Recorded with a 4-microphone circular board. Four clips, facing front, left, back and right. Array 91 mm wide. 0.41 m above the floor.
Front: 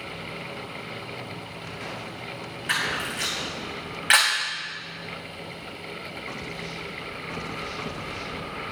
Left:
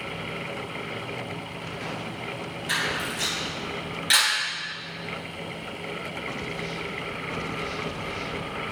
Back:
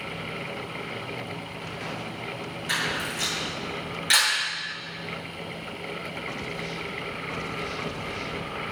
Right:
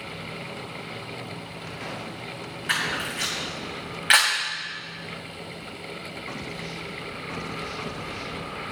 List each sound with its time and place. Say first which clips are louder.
2.7 s a camera shutter: right 1 dB, front 2 dB; 50° right, 2.5 m